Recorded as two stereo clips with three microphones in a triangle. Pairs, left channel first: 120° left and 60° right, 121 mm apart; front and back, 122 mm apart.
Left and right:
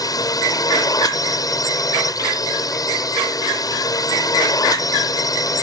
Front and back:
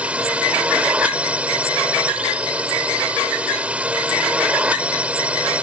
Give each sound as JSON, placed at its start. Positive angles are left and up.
{"t": 0.0, "sound": "a drone", "azimuth_deg": 110}